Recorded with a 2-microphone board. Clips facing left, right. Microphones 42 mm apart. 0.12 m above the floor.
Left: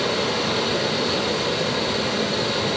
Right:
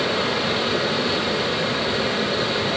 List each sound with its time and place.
0.0 s running water: 10° right (ahead or behind), 5.5 m